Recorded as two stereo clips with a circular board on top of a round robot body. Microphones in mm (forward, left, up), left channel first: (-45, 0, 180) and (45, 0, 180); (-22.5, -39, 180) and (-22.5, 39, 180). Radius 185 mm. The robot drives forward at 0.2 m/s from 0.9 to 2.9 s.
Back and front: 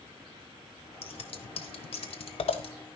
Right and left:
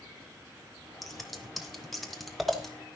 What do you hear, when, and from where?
1.0 s scissors: straight behind, 1.2 m